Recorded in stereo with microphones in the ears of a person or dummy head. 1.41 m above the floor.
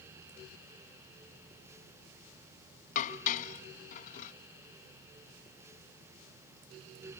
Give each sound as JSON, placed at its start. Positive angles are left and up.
{"t": 3.0, "sound": "dishes clattering", "side_deg": 40}